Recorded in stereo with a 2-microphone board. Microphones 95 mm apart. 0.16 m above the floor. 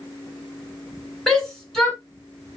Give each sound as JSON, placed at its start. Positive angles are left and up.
{"t": 1.3, "sound": "a shout", "side_deg": 5, "distance_m": 1.6}